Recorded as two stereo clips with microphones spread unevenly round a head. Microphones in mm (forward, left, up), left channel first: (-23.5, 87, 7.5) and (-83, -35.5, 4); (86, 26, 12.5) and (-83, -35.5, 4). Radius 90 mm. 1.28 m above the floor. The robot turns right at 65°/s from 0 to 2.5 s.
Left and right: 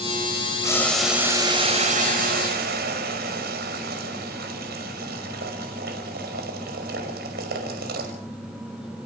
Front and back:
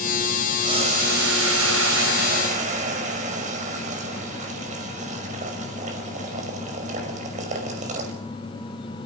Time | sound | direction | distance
0.6 | boiling | 130° left | 5.5 m